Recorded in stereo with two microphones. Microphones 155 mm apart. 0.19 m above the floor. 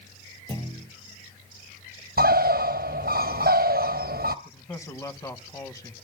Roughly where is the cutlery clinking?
No cutlery clinking in this recording.